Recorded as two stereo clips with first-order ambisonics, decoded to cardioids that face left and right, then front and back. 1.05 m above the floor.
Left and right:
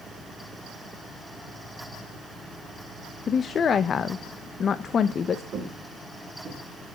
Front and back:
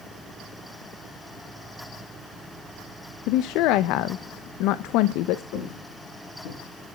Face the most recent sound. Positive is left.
turn(degrees=-10)